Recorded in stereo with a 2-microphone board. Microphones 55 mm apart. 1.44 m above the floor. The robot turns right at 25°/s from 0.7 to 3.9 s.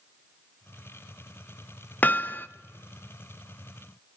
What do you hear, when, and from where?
2.0 s hammering: 35° left (ahead or behind), 0.5 m